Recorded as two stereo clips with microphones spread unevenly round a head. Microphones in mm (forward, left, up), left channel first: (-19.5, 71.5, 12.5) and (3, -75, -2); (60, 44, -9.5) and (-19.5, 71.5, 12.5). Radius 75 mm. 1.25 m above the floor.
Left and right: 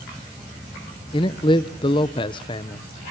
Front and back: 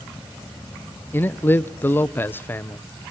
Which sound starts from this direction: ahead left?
A man speaking, at 1.1 s.